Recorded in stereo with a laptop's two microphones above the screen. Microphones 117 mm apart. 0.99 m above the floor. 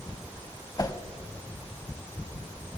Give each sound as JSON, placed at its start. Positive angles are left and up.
{"t": 0.8, "sound": "a whoosh", "side_deg": 30, "distance_m": 0.9}